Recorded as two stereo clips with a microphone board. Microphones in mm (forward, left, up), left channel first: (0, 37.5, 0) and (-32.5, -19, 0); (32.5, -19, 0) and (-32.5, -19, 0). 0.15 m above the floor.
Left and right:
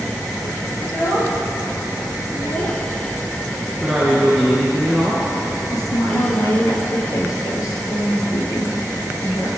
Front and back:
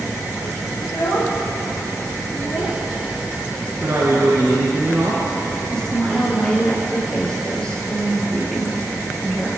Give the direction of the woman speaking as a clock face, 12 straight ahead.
9 o'clock.